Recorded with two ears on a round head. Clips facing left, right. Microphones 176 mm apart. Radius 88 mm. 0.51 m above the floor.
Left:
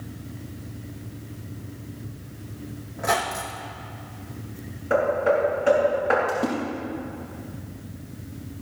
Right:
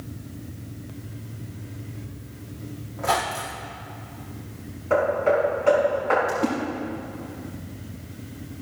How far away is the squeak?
About 2.0 m.